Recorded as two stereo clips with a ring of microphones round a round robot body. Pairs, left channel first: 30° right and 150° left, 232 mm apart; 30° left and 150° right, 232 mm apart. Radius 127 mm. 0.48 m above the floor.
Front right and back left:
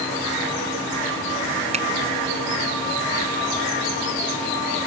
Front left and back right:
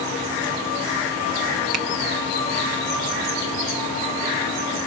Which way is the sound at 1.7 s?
145° right.